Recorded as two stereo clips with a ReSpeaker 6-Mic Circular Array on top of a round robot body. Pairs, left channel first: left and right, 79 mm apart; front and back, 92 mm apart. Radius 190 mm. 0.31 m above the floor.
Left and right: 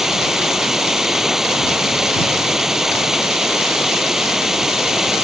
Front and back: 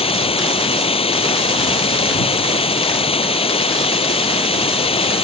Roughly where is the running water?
Ahead.